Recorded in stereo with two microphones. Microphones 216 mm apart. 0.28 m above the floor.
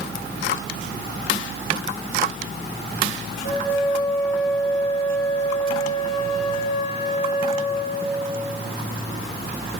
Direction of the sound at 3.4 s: 30° left (ahead or behind).